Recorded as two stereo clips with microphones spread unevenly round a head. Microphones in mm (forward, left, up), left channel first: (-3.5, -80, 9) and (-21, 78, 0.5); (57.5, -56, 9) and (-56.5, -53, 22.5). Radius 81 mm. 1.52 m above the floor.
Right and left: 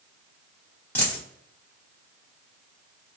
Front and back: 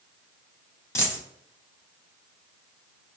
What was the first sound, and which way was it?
A dropped coin, 35° right.